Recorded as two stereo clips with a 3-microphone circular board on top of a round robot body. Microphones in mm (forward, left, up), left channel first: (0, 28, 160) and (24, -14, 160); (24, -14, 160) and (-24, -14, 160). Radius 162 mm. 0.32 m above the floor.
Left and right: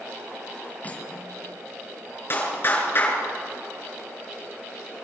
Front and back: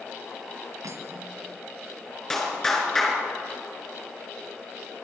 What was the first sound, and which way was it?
Cutlery clinking, straight behind.